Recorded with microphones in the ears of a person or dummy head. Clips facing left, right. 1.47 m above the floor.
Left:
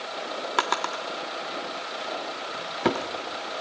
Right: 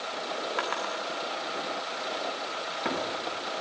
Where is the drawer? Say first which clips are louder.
Left 3 dB; 60° left (ahead or behind), 1.8 m.